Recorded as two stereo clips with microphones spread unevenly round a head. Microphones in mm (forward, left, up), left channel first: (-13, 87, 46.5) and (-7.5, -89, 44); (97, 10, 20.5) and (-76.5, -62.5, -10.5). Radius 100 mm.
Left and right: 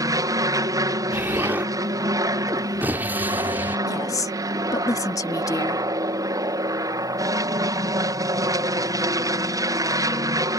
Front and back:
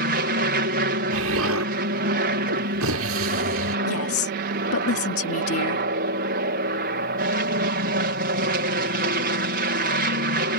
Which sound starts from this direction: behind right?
An aircraft, at 0.0 s.